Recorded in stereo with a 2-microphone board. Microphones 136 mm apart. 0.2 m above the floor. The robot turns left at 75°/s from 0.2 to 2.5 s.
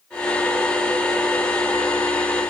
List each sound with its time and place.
Only background noise.